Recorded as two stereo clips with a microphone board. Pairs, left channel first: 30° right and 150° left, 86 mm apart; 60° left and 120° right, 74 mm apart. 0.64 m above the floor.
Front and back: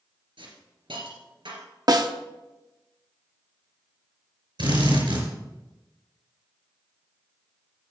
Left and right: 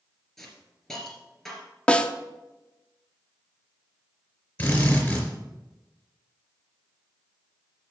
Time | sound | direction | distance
0.4 | a hiss | 145° left | 2.5 m
1.9 | a snare drum | 130° left | 0.8 m
4.6 | a drill | 130° left | 4.5 m